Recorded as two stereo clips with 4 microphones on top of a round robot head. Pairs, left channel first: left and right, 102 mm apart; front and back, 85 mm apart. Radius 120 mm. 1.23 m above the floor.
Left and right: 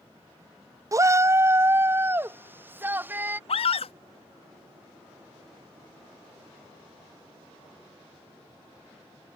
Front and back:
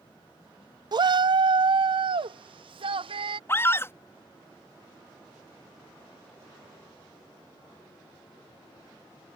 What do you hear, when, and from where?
0.9 s a shout: 150° right; by 3.4 s 160° right
3.5 s a scream: 60° left